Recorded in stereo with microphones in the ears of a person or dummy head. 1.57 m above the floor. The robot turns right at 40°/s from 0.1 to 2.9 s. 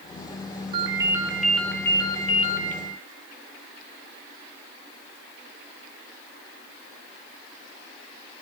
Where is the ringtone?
25° right, 2.5 m; by 2.8 s 60° left, 2.5 m.